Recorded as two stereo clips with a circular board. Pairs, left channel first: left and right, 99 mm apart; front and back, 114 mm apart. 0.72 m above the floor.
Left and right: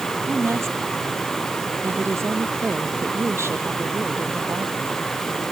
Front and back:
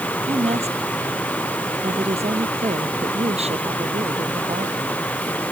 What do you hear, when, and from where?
0.3 s a woman speaking: 155° right